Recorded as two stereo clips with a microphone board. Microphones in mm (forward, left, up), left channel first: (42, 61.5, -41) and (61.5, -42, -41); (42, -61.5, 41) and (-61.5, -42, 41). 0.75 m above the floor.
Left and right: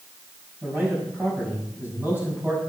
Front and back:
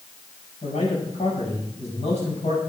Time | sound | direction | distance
0.6 | a man speaking | 5° right | 6 m